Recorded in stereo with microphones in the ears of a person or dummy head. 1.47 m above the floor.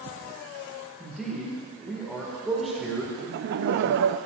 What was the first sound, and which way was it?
A man speaking, centre (ahead or behind).